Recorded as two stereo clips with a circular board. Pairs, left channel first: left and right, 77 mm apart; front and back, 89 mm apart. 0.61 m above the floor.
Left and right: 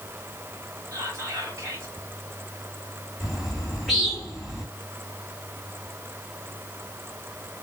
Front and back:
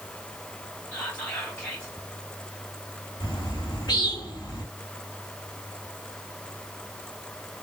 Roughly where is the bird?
Ahead.